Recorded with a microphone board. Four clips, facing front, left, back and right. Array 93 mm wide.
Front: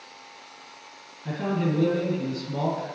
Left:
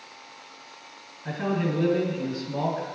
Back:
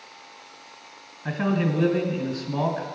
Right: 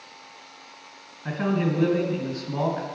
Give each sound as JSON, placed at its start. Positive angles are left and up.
{"t": 1.2, "sound": "a man speaking", "azimuth_deg": -150, "distance_m": 1.9}